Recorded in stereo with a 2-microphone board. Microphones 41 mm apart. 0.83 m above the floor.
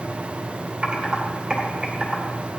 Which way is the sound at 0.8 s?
25° right (ahead or behind).